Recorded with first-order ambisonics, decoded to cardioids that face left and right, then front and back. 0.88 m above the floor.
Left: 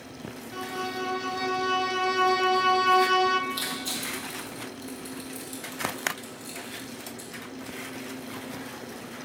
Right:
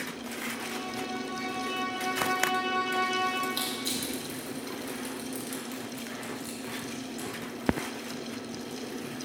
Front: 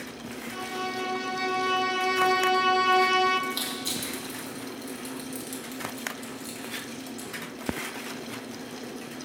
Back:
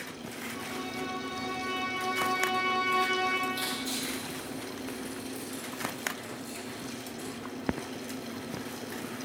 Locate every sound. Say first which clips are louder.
0.5 s a violin: left 3 dB, front 7 dB; 35° left, 0.6 m
3.5 s crushing: left 1 dB, front 1 dB; 40° right, 4 m